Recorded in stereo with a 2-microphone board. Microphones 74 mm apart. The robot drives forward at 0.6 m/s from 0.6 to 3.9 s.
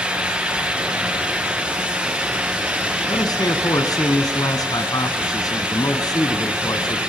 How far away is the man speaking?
About 2.5 m.